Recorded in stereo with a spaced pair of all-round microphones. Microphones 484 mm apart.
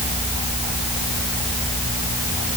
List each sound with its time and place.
Only background noise.